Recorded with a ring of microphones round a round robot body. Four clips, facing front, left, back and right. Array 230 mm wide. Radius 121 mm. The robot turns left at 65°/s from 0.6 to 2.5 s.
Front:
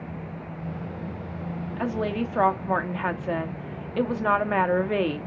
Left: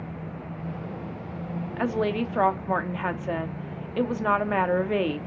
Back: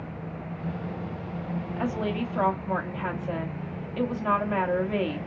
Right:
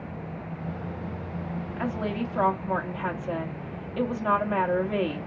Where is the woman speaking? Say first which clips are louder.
Left 5 dB, front 2 dB; 85° left, 0.7 m; by 5.2 s 40° left, 0.7 m.